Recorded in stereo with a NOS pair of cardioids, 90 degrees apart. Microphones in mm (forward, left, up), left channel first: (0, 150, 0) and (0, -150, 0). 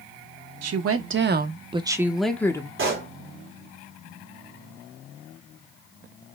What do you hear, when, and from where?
0.6 s a woman speaking: 60° right, 1.1 m; by 2.7 s 15° left, 1.2 m
2.8 s a pop: 45° right, 2.5 m